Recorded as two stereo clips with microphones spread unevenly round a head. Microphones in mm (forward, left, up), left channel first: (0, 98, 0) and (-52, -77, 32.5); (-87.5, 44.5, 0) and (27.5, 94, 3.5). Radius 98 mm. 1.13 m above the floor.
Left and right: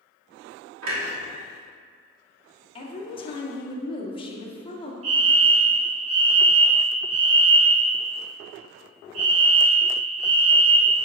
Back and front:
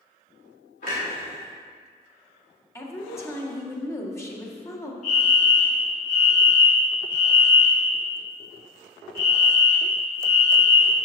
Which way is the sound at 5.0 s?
115° right.